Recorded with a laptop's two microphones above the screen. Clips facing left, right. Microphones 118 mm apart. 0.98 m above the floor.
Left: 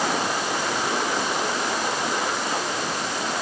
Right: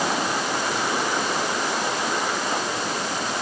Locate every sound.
Only background noise.